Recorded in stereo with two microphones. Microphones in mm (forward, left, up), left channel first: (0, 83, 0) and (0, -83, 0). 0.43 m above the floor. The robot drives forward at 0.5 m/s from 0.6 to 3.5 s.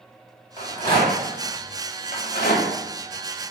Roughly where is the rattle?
Left.